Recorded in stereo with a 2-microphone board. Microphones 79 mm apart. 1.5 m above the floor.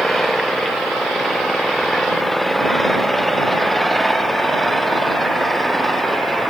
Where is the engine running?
Centre (ahead or behind).